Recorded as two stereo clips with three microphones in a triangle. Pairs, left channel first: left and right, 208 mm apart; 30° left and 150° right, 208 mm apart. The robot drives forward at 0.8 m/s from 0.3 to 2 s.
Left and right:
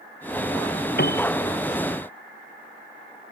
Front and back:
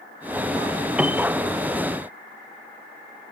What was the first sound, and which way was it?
A piano, 125° left.